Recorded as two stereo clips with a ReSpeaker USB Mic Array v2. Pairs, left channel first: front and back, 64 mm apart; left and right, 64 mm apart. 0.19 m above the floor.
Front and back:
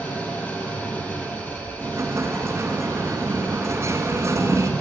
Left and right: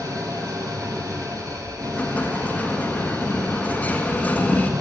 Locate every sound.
0.0 s an engine running: 70° right, 4 m
1.8 s an explosion: 150° left, 2 m